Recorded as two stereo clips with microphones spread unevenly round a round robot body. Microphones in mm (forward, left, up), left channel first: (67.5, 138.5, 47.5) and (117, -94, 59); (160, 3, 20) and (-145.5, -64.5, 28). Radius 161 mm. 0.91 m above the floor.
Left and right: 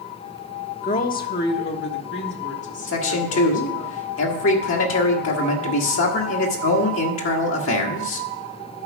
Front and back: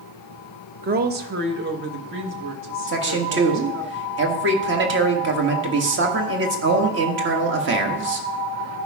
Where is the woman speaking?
140° left, 0.8 m.